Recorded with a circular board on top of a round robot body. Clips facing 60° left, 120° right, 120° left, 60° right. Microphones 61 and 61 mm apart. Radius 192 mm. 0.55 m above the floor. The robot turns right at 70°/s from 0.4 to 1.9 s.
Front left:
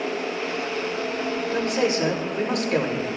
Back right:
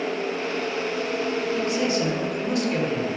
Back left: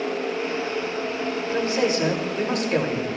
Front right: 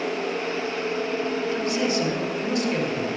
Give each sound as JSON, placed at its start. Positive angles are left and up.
{"t": 1.5, "sound": "a man speaking", "azimuth_deg": 60, "distance_m": 2.5}